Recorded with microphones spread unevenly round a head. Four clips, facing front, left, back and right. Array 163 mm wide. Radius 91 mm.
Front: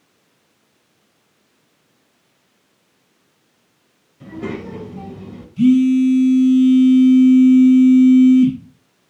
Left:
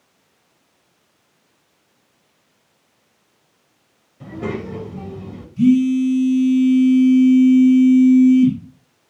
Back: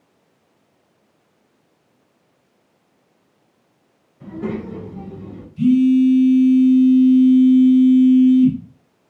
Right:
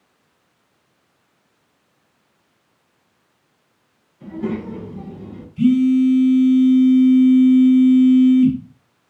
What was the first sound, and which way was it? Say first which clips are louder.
A child speaking: right 1 dB, back 1 dB; 60° left.